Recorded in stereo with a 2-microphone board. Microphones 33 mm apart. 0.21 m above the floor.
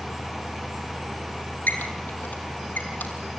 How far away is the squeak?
About 4.5 m.